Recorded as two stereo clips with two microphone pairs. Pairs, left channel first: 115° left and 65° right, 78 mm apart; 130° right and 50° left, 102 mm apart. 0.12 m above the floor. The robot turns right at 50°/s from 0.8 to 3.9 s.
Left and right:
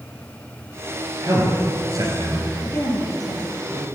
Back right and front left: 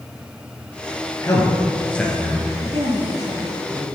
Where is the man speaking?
90° right, 1.9 m; by 2.5 s 25° right, 1.9 m.